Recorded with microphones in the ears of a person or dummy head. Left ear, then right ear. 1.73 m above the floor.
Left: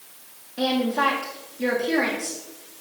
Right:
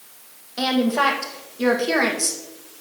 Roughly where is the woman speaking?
Right.